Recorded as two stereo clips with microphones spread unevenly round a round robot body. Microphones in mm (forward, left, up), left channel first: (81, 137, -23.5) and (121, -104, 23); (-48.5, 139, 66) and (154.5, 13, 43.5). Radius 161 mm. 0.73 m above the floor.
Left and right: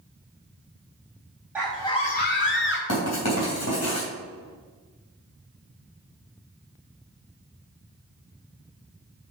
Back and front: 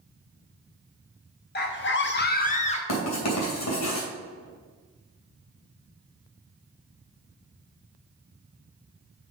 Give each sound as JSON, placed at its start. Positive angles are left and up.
{"t": 1.6, "sound": "a scream", "azimuth_deg": -170, "distance_m": 0.8}
{"t": 2.9, "sound": "writing", "azimuth_deg": 140, "distance_m": 3.0}